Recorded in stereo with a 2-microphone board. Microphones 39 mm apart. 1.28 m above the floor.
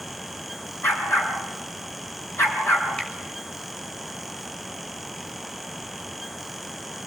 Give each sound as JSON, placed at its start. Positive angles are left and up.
{"t": 0.8, "sound": "a dog barking", "side_deg": 70, "distance_m": 5.0}
{"t": 3.0, "sound": "a finger snap", "side_deg": 25, "distance_m": 6.5}